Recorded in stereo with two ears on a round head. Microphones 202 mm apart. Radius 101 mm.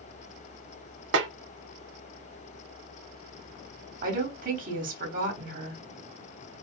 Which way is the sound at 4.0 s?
40° right (ahead or behind).